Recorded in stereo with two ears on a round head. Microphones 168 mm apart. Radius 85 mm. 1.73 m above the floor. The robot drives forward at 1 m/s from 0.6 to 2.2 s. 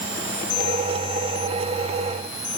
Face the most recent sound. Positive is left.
No sound to turn to.